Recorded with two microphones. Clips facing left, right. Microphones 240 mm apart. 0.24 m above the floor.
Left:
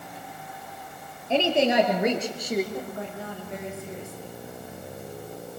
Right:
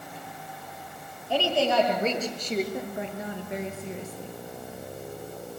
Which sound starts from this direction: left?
A woman speaking, at 1.3 s.